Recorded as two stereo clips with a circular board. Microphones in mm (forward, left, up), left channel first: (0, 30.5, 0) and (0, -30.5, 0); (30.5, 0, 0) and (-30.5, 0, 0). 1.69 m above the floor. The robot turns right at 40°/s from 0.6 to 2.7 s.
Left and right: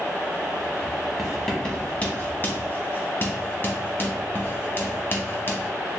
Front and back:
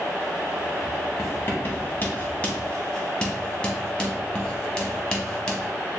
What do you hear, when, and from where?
1.2 s writing: 5° left, 0.9 m; by 5.7 s 65° left, 0.9 m